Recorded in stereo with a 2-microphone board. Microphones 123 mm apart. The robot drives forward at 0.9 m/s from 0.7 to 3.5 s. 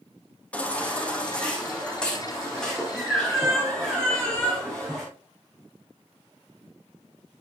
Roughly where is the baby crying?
Centre.